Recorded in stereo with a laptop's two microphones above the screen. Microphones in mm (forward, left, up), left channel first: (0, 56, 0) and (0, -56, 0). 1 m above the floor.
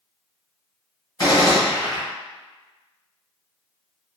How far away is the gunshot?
About 1.8 m.